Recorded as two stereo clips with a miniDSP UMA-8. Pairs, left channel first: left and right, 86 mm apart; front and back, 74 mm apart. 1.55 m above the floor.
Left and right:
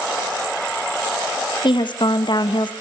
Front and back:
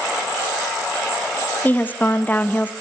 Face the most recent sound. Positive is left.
turn(degrees=65)